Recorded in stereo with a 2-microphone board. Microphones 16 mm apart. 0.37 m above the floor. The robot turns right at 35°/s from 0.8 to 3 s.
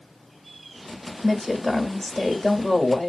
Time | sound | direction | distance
1.2 | a woman speaking | 40° left | 1.2 m